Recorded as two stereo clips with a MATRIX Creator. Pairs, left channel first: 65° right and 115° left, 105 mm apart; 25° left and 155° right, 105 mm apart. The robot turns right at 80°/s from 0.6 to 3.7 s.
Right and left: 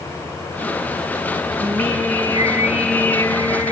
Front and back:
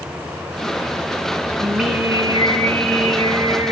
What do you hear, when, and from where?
1.6 s singing: 105° left, 6 m; by 3.7 s 90° right, 6 m